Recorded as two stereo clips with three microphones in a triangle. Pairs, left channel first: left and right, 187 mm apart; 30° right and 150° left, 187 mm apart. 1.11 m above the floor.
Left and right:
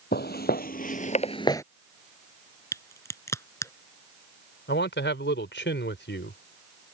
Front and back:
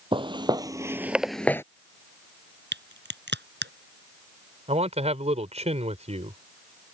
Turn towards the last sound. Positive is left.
turn(degrees=95)